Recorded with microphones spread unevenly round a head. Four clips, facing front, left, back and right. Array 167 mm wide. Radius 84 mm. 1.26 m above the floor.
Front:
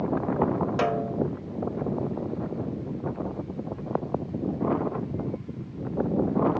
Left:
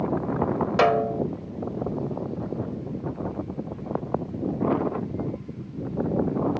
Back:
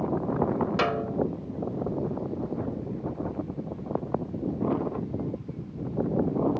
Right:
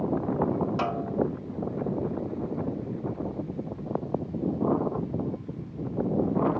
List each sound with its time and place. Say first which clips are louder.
0.8 s a snare drum: left 7 dB, front 1 dB; 95° left